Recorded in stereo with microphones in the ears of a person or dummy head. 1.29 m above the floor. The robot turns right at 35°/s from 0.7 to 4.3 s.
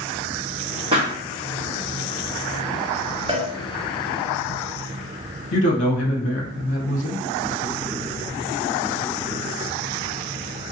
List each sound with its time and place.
0.9 s a pop: 30° right (ahead or behind), 1.0 m; by 1.1 s 25° right (ahead or behind), 1.0 m
3.3 s a cowbell: 30° right (ahead or behind), 0.5 m; by 3.5 s 35° right (ahead or behind), 0.5 m
5.5 s a man speaking: 50° left (ahead or behind), 0.7 m